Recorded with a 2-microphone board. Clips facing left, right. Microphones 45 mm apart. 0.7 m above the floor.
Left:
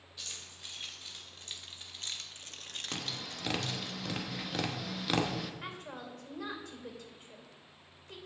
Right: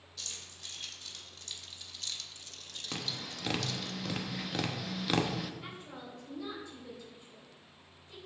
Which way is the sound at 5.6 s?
65° left (ahead or behind).